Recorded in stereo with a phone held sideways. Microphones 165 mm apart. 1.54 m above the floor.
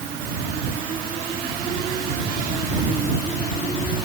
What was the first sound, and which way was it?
Only background noise.